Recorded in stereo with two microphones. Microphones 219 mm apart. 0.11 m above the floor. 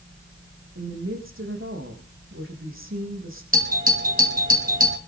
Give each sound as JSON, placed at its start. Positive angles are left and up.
{"t": 0.8, "sound": "a woman speaking", "side_deg": -65, "distance_m": 5.5}
{"t": 3.5, "sound": "a doorbell", "side_deg": -40, "distance_m": 4.5}